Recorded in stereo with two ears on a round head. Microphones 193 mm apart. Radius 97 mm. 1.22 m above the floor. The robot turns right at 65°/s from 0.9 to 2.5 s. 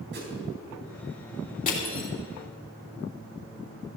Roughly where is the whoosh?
Right.